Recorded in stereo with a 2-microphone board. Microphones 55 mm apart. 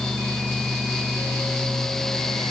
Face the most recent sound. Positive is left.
No sound to turn to.